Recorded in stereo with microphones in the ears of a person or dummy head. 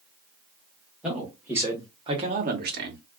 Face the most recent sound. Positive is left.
turn(degrees=-55)  # may be behind; listen again after turning